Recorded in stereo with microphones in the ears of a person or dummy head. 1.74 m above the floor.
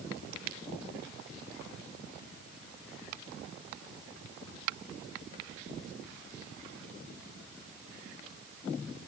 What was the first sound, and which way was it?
Only background noise.